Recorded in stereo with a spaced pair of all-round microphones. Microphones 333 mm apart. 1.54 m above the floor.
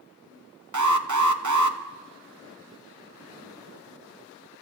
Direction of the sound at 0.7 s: 60° right (ahead or behind).